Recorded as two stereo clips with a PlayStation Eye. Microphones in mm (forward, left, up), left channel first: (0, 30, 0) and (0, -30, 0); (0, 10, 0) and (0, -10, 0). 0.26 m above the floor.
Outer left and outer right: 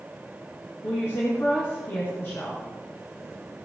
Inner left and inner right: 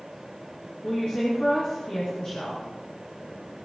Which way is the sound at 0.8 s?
45° left (ahead or behind).